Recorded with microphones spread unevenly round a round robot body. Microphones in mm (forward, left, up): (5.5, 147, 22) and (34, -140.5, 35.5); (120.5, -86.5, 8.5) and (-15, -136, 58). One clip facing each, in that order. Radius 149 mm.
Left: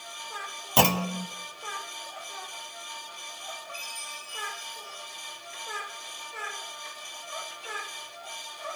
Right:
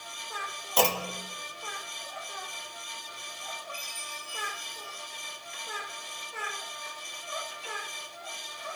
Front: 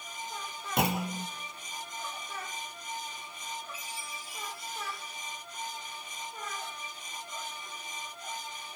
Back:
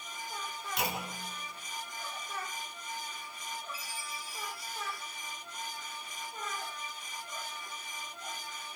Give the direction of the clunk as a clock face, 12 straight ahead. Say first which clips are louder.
Left 3 dB, front 8 dB; 10 o'clock.